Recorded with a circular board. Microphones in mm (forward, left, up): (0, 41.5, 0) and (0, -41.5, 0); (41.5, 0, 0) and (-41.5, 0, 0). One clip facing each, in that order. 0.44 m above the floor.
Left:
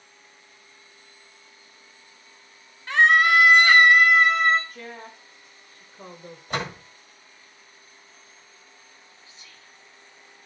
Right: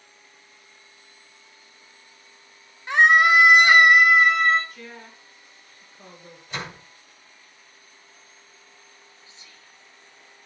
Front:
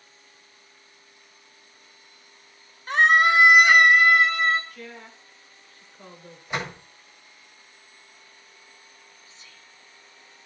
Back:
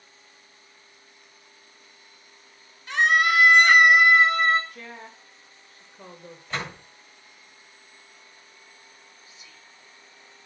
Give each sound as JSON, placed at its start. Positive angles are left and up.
{"t": 2.9, "sound": "a scream", "azimuth_deg": -25, "distance_m": 1.3}
{"t": 4.7, "sound": "a woman speaking", "azimuth_deg": 125, "distance_m": 1.6}
{"t": 6.5, "sound": "a door slam", "azimuth_deg": 75, "distance_m": 1.6}
{"t": 9.2, "sound": "whispering", "azimuth_deg": -115, "distance_m": 1.1}